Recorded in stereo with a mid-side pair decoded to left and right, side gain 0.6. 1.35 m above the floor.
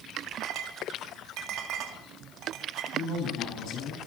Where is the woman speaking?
60° left, 9.5 m.